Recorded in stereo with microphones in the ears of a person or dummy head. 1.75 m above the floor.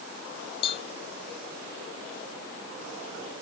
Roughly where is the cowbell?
Left.